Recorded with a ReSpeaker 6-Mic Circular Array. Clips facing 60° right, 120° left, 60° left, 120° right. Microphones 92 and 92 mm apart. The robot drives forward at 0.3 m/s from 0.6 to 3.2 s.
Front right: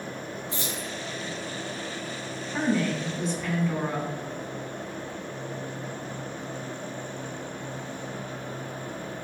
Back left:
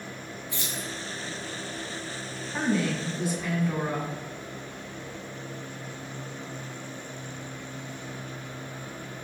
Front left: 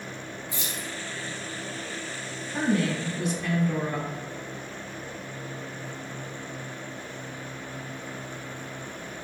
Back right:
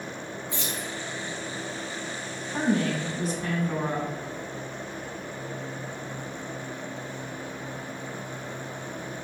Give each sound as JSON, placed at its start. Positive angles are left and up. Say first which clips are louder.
{"t": 0.5, "sound": "keys jangling", "louder": "front right 1 dB, back right 3 dB", "azimuth_deg": -20, "distance_m": 1.7}
{"t": 2.5, "sound": "a woman speaking", "louder": "front right 1 dB, even", "azimuth_deg": -150, "distance_m": 1.3}